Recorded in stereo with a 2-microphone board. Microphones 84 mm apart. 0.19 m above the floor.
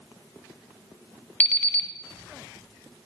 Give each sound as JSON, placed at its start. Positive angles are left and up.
{"t": 1.4, "sound": "an alarm clock", "side_deg": 20, "distance_m": 0.6}